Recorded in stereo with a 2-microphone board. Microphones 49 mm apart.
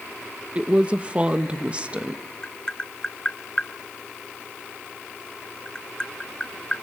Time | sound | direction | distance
0.6 | a woman speaking | 25° right (ahead or behind) | 1.0 m
2.4 | tapping | 15° left (ahead or behind) | 0.7 m